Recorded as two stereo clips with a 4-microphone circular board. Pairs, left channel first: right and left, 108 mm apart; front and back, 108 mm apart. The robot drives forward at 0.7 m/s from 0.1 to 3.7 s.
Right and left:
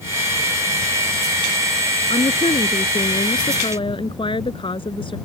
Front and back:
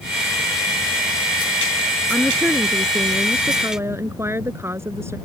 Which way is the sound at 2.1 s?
90° right.